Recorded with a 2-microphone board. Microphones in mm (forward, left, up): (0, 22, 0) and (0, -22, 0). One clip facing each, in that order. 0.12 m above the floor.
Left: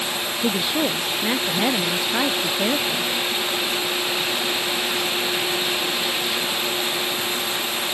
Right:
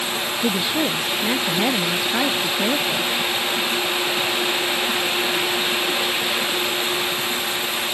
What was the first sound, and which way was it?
A woman speaking, 5° left (ahead or behind).